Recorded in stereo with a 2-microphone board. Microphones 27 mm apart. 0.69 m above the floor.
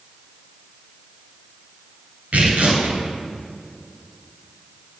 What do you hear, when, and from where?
2.3 s tearing paper: 70° right (ahead or behind), 1.9 m